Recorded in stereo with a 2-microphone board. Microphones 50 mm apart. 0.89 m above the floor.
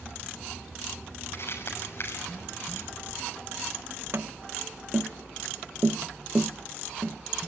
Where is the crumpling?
55° left (ahead or behind), 6.5 m.